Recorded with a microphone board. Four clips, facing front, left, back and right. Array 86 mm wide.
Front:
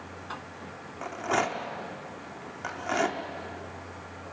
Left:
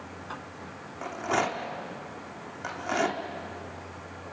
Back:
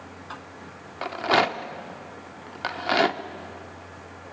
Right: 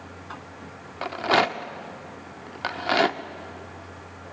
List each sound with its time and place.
1.0 s a rattle: 135° right, 1.0 m